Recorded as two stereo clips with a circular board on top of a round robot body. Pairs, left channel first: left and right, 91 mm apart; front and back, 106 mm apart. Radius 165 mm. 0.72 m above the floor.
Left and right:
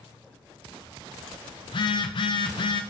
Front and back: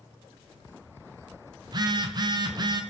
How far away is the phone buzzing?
About 0.7 m.